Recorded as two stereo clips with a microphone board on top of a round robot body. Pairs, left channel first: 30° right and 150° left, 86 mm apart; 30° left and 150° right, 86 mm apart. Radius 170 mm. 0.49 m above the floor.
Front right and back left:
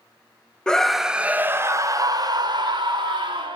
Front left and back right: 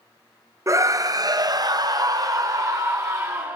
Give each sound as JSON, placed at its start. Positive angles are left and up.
{"t": 0.7, "sound": "a scream", "azimuth_deg": -110, "distance_m": 0.9}